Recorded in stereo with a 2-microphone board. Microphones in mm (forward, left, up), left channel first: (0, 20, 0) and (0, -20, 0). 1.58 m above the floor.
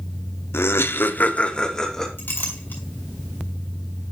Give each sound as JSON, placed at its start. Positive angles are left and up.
{"t": 0.5, "sound": "laughter", "side_deg": 80, "distance_m": 0.7}
{"t": 2.2, "sound": "a clink", "side_deg": 60, "distance_m": 3.0}